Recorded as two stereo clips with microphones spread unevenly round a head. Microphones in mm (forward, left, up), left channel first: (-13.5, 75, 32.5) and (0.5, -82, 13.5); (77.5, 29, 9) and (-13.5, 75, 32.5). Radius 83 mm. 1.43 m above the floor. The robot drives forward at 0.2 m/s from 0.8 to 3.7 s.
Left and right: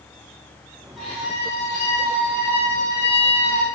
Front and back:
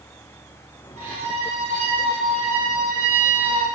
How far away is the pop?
No pop in this recording.